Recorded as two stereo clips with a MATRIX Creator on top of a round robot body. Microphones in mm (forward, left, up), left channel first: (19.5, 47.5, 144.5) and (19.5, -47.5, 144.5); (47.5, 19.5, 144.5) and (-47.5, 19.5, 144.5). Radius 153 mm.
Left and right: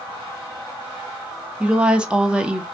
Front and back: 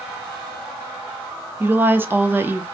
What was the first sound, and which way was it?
A woman speaking, 155° right.